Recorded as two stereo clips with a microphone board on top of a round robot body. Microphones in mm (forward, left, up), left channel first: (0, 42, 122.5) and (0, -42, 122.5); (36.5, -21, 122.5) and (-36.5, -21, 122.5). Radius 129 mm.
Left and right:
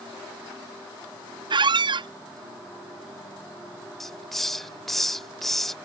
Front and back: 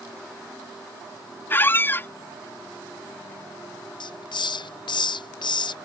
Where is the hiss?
Straight ahead.